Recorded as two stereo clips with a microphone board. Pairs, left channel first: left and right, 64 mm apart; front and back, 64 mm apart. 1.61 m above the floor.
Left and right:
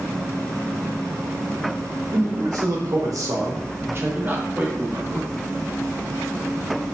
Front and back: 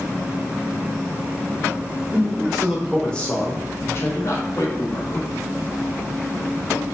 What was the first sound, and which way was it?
A man speaking, 105° right.